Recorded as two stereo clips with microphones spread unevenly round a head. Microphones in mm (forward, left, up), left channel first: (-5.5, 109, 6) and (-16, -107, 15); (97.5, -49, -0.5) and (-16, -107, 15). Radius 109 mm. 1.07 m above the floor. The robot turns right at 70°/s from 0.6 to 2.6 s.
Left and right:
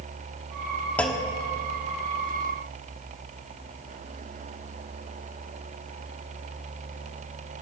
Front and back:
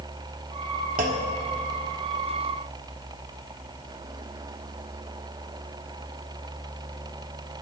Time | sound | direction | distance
1.0 | a clunk | 170° left | 1.1 m